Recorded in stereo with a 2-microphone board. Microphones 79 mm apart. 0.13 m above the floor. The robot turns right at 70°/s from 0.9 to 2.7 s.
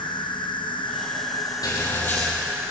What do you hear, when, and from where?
0.0 s an insect: 90° left, 1.1 m; by 2.7 s 145° right, 1.1 m
1.6 s scissors: 125° left, 3.5 m; by 2.3 s 170° left, 3.5 m